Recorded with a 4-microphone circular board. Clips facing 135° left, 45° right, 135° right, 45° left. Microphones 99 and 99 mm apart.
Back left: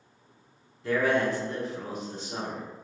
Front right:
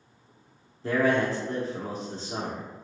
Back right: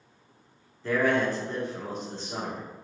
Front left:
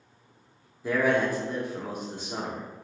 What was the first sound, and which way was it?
A man speaking, 25° right.